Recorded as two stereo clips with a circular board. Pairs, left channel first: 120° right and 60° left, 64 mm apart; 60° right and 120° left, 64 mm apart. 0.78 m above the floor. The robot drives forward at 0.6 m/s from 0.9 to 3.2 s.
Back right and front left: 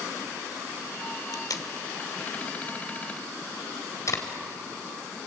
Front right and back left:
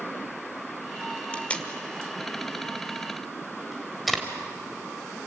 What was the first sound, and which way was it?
Tape being pulled, 125° right.